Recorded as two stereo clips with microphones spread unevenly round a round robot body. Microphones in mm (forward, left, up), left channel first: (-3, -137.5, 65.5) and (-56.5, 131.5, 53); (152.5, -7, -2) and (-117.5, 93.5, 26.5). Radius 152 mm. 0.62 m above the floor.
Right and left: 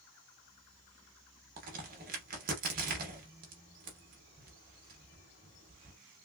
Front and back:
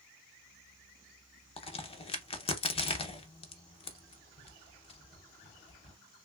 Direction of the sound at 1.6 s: 50° left.